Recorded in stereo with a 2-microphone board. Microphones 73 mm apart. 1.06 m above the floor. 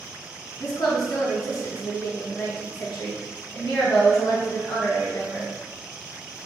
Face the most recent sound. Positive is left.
turn(degrees=55)  # may be behind; listen again after turning